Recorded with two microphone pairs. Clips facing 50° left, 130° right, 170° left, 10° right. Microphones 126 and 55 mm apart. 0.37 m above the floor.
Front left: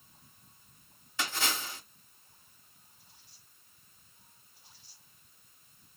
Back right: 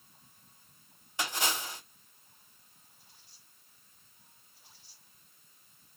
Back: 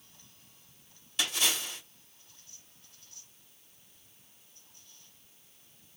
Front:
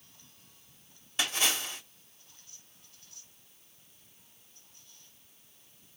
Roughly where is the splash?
Ahead right.